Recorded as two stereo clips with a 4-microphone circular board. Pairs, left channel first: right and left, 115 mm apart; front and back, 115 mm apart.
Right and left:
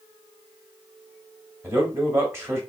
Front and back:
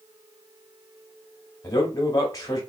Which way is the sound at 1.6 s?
35° left.